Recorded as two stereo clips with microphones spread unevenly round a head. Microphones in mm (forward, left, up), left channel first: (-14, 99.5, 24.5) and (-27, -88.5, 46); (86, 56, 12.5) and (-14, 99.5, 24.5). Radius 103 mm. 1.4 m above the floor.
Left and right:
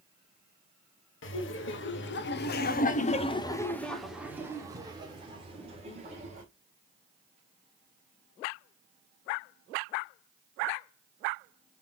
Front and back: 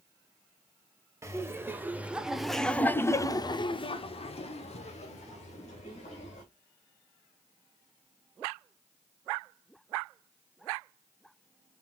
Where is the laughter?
90° left, 1.3 m; by 6.4 s 35° right, 1.9 m.